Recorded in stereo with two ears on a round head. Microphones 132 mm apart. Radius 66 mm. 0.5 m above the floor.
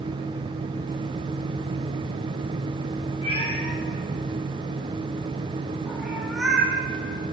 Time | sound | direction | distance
3.2 | a cat meowing | 40° left (ahead or behind) | 6 m